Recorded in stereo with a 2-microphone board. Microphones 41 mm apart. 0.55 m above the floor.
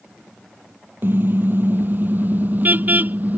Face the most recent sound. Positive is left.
turn(degrees=-40)  # may be behind; listen again after turning